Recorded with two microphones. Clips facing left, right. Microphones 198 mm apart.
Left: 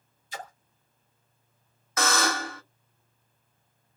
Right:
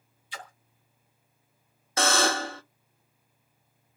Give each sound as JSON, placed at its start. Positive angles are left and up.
{"t": 0.3, "sound": "a splash", "side_deg": 40, "distance_m": 1.0}
{"t": 2.0, "sound": "a buzzer", "side_deg": -30, "distance_m": 0.6}